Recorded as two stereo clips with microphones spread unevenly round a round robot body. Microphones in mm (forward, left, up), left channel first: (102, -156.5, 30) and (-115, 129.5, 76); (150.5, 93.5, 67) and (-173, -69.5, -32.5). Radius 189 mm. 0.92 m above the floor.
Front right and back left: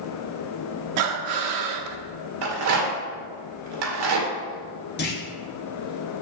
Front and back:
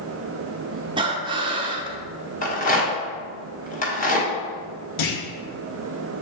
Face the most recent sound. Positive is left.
turn(degrees=10)